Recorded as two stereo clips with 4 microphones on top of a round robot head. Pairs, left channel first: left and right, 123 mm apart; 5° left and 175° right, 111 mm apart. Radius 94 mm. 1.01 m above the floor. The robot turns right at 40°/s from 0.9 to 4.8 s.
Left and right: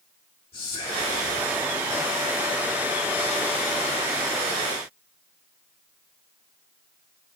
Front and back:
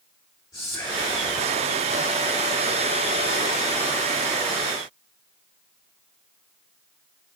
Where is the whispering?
60° left, 4 m; by 1.2 s 75° left, 4 m.